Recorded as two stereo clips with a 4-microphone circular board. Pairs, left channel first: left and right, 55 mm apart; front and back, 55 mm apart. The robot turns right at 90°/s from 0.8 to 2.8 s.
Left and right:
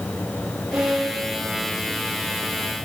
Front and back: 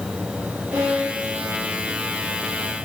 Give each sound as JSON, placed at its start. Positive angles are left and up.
{"t": 0.7, "sound": "a violin", "azimuth_deg": -160, "distance_m": 9.5}